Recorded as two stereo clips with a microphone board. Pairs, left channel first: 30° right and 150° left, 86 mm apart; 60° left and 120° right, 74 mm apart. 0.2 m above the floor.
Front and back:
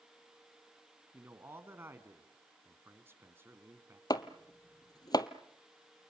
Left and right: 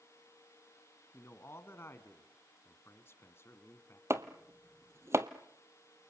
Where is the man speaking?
100° left, 1.6 m.